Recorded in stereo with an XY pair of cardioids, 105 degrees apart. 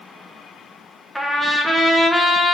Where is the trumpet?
5° right, 0.6 m.